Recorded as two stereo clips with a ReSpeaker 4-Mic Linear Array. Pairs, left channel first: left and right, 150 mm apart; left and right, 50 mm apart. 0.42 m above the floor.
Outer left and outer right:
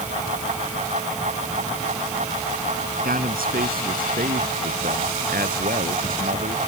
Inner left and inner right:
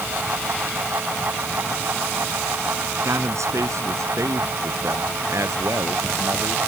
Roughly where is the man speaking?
Right.